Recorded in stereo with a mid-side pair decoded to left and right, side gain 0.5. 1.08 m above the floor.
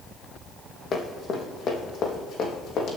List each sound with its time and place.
0.9 s running footsteps: 45° left, 3.5 m; by 3.0 s 60° left, 4 m